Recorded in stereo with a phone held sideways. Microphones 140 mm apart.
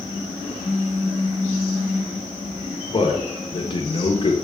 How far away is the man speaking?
About 1.0 m.